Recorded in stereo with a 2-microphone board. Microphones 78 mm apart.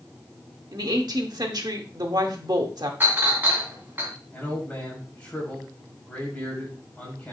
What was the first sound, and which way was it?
A woman speaking, 60° right (ahead or behind).